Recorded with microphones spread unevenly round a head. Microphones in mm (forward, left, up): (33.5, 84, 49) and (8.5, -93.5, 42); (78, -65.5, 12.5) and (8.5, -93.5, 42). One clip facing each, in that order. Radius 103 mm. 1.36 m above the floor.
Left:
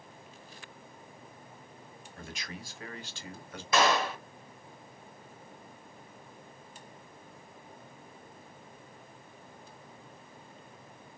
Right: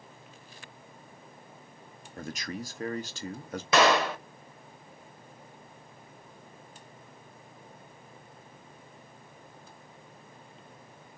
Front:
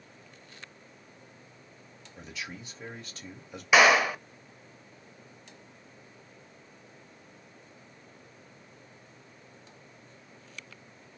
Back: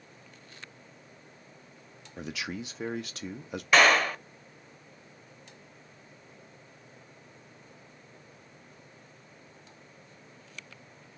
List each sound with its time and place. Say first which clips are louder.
2.2 s a man speaking: right 8 dB, back 6 dB; 150° right, 0.7 m
3.7 s a clap: right 4 dB, front 1 dB; 65° right, 0.6 m